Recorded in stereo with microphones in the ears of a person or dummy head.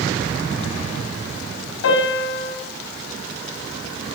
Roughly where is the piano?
Left.